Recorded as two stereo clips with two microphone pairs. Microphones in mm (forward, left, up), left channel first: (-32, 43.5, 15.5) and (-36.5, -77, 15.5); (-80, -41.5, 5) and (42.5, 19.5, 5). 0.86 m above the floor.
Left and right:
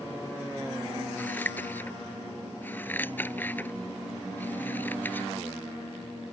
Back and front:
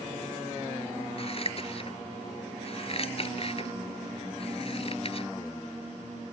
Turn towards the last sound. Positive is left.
turn(degrees=160)